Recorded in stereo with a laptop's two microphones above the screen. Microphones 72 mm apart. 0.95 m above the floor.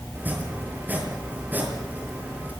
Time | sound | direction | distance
0.1 | chopping | 25° right (ahead or behind) | 6.5 m